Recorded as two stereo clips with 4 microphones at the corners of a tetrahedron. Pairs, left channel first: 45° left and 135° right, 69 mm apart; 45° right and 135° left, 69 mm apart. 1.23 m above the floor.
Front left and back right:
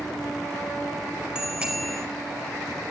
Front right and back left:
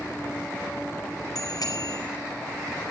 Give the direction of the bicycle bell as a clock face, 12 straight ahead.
2 o'clock.